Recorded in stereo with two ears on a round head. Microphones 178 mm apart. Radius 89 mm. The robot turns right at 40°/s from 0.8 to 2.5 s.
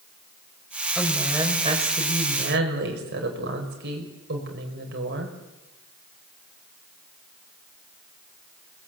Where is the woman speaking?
175° left, 6.5 m; by 5.3 s 120° right, 6.5 m.